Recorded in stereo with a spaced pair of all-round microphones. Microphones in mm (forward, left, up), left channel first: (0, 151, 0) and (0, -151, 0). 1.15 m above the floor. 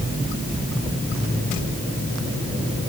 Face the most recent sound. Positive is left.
No sound to turn to.